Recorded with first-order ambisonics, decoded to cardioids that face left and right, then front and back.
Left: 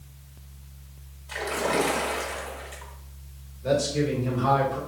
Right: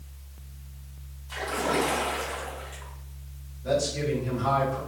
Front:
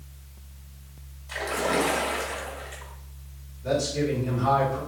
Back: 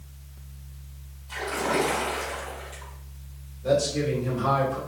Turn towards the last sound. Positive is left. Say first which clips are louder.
# left 2 dB, back 2 dB
turn(degrees=125)